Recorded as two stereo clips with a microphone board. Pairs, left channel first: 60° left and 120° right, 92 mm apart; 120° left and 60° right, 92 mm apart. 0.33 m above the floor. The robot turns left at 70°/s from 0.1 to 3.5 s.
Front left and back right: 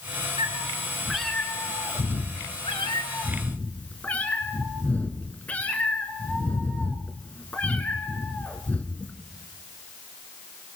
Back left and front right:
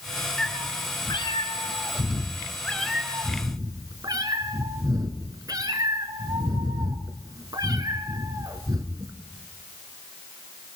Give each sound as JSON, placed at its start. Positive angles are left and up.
{"t": 0.4, "sound": "a cat meowing", "azimuth_deg": -155, "distance_m": 2.5}